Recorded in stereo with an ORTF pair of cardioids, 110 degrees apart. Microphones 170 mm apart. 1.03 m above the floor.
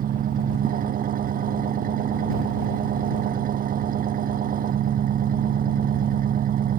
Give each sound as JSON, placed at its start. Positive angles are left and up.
{"t": 0.0, "sound": "an engine running", "azimuth_deg": -55}